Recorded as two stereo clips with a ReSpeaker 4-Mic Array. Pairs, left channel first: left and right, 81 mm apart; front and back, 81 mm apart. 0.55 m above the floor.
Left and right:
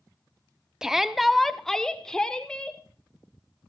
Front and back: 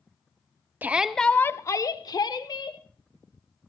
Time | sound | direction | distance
0.8 | a shout | 165° right | 0.7 m